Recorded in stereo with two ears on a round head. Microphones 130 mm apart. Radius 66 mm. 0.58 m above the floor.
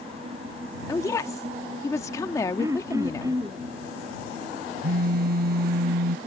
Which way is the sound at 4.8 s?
60° right (ahead or behind).